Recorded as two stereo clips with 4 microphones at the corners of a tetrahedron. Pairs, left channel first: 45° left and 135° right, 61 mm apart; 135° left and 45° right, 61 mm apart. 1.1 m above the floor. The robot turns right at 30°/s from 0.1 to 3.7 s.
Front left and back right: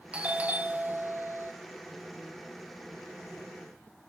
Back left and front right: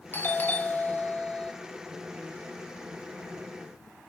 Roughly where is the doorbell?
Behind.